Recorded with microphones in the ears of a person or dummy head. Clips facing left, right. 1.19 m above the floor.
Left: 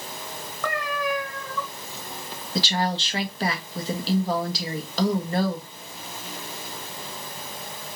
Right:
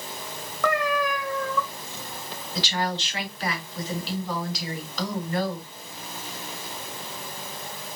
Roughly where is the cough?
I don't hear a cough.